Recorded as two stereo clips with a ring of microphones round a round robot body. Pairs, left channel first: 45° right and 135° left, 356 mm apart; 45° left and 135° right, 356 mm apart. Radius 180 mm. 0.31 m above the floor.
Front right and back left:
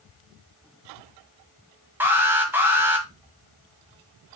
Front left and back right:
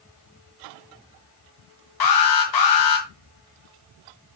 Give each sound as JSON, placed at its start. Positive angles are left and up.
{"t": 2.0, "sound": "an alarm", "azimuth_deg": 50, "distance_m": 1.8}